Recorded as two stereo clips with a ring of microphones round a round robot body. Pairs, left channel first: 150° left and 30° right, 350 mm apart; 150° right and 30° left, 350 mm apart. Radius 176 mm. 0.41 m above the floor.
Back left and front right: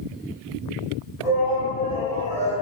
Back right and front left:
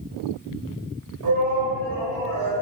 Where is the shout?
50° left, 2.5 m; by 2.5 s 35° left, 3 m.